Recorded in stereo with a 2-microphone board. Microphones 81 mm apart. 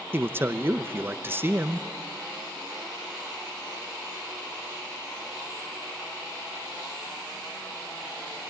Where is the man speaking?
25° right (ahead or behind), 0.8 m.